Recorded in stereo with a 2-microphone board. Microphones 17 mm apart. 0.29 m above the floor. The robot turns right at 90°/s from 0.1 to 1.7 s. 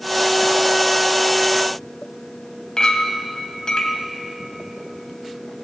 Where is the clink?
50° left (ahead or behind), 1.3 m.